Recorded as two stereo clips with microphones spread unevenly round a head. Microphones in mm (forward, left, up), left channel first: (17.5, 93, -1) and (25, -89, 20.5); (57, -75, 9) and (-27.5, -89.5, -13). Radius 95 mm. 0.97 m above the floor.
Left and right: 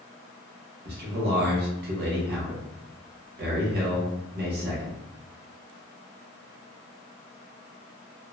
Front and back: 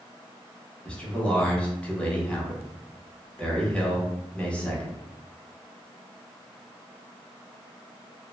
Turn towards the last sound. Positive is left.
turn(degrees=-80)